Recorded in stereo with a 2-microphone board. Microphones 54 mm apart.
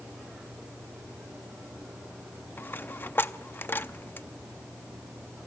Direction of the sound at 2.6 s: 40° left (ahead or behind).